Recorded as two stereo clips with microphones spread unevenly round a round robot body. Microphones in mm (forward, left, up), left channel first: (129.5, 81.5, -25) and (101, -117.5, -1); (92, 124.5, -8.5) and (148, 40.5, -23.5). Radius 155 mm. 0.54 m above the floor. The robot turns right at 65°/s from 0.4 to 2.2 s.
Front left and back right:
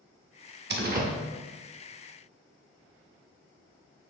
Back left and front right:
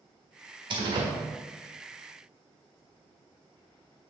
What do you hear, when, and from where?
0.7 s a door slam: 75° right, 1.4 m; by 1.1 s 50° right, 1.4 m